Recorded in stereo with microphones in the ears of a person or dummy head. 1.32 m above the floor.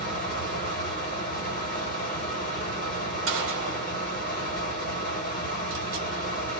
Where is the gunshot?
60° right (ahead or behind), 0.9 m.